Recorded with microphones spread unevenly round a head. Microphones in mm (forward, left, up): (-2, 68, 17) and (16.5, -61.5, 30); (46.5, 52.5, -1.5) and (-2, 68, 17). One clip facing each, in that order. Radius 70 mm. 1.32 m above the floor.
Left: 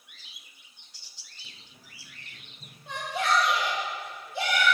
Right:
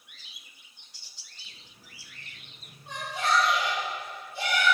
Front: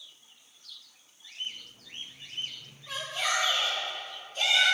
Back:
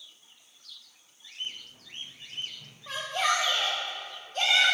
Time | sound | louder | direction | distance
1.4 | running footsteps | left 1 dB, even | 125° left | 5 m
2.9 | a shout | left 1 dB, back 4 dB | 120° left | 2 m